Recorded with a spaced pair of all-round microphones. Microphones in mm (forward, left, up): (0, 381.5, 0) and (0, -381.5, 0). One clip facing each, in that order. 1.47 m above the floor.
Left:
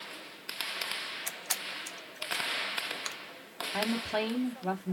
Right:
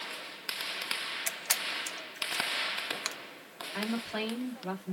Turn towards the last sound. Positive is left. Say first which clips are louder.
# left 2 dB
turn(degrees=65)  # may be behind; listen again after turning